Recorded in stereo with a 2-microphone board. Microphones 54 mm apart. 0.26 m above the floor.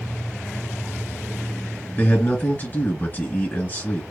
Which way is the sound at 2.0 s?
35° left (ahead or behind).